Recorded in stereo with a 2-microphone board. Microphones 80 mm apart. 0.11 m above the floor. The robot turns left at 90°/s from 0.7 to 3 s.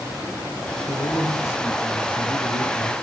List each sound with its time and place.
0.9 s a man speaking: 90° left, 5.5 m; by 2.9 s 95° right, 5.5 m